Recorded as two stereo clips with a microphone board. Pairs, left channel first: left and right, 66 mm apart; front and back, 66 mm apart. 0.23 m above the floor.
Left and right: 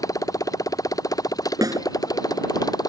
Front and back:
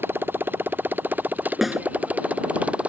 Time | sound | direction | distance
0.0 | a motorcycle | 120° left | ?
1.6 | a snare drum | 95° right | ?